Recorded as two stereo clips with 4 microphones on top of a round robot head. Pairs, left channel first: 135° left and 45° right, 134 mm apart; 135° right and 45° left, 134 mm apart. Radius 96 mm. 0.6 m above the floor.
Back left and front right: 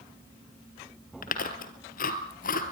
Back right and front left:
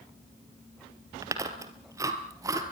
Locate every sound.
1.2 s chewing: 110° left, 2.5 m